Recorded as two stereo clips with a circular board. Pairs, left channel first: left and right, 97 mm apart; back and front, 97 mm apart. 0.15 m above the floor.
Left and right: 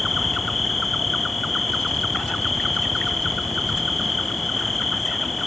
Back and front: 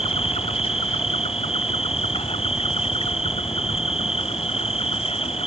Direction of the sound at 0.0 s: Straight behind.